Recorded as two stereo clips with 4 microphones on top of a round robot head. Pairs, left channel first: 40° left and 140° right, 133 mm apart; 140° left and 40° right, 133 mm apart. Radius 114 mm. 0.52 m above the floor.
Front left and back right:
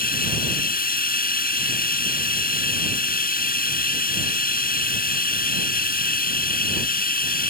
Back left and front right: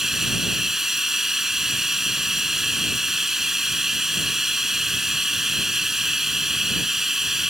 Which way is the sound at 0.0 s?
45° left.